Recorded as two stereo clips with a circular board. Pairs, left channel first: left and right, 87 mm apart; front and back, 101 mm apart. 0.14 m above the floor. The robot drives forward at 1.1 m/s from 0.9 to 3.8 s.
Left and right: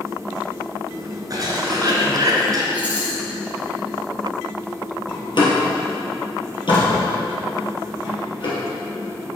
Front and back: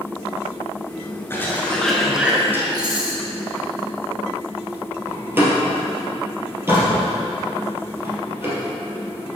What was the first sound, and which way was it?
A cough, 60° right.